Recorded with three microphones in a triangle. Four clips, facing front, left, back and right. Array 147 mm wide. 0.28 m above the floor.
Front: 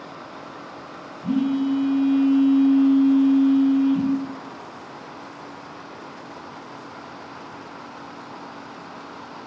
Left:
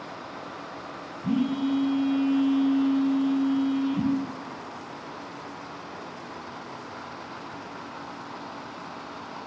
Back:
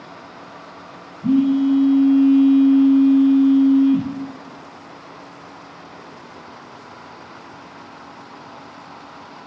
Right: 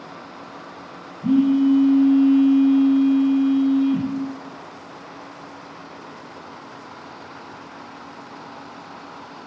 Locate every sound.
1.2 s a phone buzzing: 130° right, 1.5 m